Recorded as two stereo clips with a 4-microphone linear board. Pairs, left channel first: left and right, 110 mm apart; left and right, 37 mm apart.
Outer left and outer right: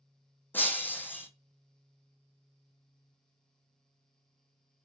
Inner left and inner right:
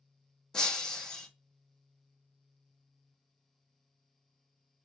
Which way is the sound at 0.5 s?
15° left (ahead or behind).